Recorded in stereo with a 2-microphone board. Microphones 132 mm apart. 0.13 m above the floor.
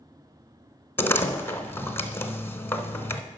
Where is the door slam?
15° left (ahead or behind), 0.8 m.